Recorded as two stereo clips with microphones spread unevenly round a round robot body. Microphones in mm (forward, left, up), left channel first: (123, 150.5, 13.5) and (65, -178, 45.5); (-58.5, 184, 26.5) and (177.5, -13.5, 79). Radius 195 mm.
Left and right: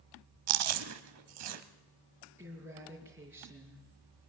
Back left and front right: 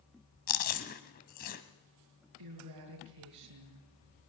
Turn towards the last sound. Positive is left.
turn(degrees=-15)